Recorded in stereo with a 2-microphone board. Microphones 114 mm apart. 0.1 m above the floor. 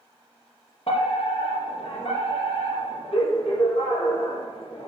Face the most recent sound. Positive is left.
turn(degrees=65)  # may be behind; listen again after turning